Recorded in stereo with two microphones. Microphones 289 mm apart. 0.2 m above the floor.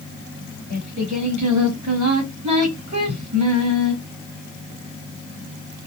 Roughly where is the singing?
Right.